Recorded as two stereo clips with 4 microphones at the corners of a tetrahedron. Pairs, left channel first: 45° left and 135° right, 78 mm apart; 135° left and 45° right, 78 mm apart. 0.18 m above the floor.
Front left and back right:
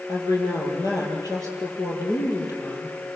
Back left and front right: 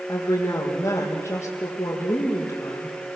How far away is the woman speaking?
About 6 m.